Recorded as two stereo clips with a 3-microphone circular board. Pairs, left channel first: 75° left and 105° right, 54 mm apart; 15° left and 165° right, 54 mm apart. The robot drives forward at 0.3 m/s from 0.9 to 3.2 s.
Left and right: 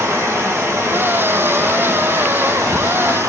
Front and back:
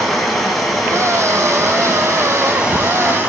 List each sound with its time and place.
0.0 s running water: 70° right, 1.6 m; by 3.3 s 100° right, 1.5 m